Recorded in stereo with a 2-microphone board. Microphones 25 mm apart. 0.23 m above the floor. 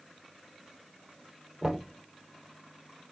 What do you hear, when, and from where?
1.6 s knocking: 30° right (ahead or behind), 4 m